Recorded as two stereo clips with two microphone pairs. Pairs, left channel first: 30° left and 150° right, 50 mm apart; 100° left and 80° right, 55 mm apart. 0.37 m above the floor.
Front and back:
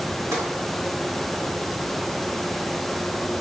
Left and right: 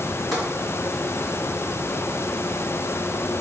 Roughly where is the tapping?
Behind.